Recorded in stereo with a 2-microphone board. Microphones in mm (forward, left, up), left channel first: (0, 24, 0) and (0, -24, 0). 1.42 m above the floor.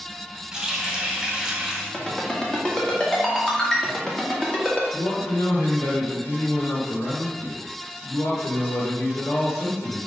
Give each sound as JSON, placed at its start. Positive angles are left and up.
{"t": 0.5, "sound": "a running tap", "side_deg": -10, "distance_m": 1.8}
{"t": 1.9, "sound": "a ringtone", "side_deg": 15, "distance_m": 1.7}
{"t": 4.9, "sound": "a man speaking", "side_deg": 75, "distance_m": 1.7}